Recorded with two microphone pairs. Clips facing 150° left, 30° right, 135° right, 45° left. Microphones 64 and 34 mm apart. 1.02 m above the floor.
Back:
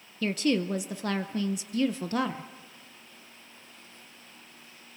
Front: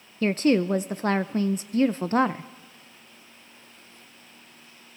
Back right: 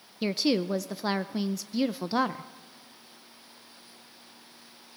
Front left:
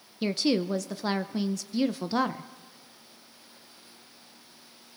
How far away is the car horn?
I don't hear a car horn.